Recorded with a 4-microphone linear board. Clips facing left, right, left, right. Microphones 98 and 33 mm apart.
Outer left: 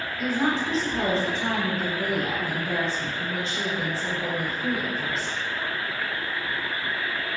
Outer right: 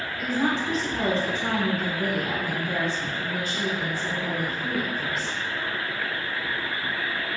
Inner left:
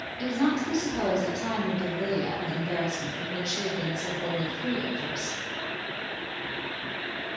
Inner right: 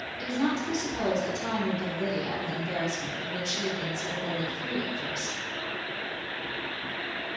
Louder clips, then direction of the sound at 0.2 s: Outer left 1 dB, inner left 3 dB; 30° left (ahead or behind).